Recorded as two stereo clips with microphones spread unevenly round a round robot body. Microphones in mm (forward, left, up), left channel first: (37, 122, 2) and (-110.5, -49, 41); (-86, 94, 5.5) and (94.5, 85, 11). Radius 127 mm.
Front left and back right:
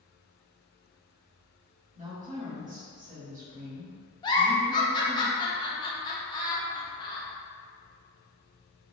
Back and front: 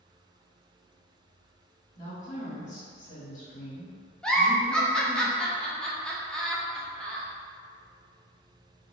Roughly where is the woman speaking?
Behind.